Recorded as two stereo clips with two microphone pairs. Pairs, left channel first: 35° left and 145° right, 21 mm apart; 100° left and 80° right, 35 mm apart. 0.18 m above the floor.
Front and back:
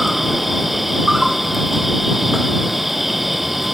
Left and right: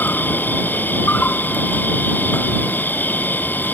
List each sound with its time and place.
0.0 s an insect: 130° left